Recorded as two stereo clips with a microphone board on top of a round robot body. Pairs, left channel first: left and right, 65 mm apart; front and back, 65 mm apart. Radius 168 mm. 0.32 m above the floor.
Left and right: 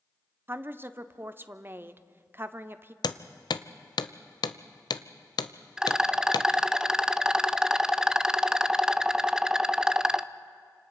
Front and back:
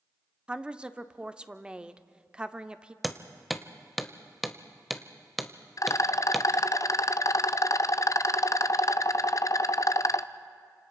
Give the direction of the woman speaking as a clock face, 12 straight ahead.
4 o'clock.